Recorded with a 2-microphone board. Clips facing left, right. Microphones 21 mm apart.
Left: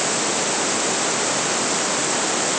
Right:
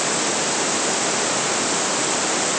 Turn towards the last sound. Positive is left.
No sound to turn to.